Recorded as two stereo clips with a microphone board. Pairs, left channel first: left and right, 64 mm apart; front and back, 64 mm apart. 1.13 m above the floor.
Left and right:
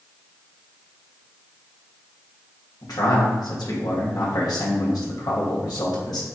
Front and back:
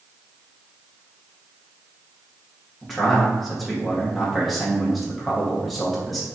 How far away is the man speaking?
About 1.7 m.